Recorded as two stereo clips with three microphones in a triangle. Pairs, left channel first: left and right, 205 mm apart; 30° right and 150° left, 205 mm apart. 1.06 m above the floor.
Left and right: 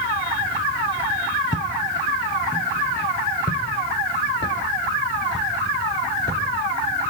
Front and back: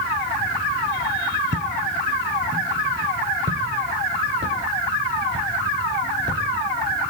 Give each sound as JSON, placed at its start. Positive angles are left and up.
{"t": 1.5, "sound": "footsteps", "azimuth_deg": 140, "distance_m": 2.5}